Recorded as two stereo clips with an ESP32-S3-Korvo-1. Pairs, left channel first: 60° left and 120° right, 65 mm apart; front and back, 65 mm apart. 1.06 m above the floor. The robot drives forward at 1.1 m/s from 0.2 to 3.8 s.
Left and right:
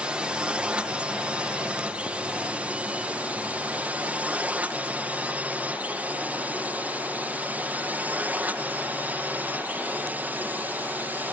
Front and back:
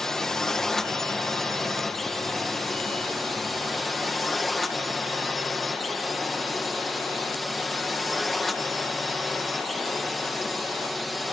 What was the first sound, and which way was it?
A drone, 70° right.